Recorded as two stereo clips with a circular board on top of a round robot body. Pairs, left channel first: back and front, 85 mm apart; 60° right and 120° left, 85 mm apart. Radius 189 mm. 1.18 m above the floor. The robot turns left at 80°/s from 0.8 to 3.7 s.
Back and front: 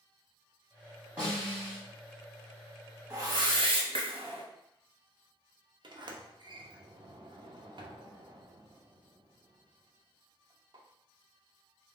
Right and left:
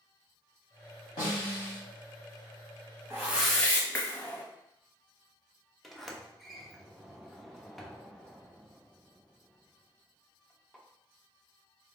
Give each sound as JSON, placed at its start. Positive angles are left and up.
{"t": 1.2, "sound": "a snare drum", "azimuth_deg": -75, "distance_m": 1.4}
{"t": 3.1, "sound": "a whoosh", "azimuth_deg": 60, "distance_m": 1.2}
{"t": 5.8, "sound": "a sliding door", "azimuth_deg": 30, "distance_m": 0.8}